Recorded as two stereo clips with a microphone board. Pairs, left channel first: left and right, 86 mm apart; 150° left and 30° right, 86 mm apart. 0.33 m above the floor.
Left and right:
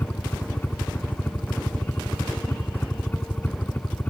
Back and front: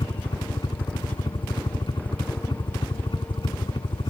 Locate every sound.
0.0 s a helicopter: 155° left